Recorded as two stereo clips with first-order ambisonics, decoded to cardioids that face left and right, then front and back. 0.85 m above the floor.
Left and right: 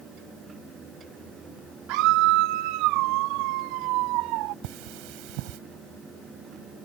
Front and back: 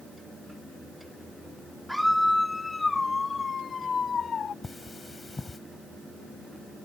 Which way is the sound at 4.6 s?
80° right.